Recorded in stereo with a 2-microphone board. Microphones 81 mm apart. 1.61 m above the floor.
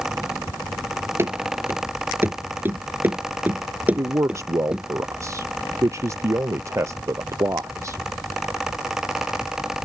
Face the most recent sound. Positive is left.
turn(degrees=-35)  # may be behind; listen again after turning